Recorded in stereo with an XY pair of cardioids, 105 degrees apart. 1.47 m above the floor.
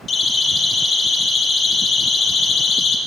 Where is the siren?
40° left, 3 m; by 3.0 s 60° left, 1.6 m.